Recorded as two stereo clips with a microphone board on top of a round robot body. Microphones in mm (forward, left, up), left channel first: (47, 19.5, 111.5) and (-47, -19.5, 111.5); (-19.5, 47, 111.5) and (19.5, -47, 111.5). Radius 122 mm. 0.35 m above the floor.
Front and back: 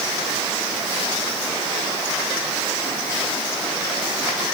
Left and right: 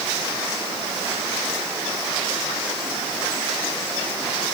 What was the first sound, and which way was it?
Only background noise.